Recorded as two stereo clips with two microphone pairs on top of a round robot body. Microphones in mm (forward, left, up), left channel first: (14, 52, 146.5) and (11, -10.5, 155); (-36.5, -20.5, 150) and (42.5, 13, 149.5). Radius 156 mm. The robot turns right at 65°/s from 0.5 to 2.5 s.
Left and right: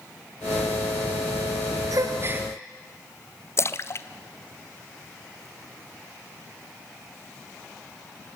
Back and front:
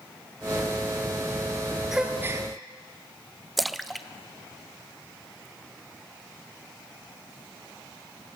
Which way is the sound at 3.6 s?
115° left.